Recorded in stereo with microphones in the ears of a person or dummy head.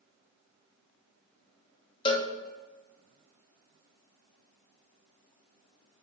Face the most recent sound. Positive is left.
turn(degrees=25)  # may be behind; listen again after turning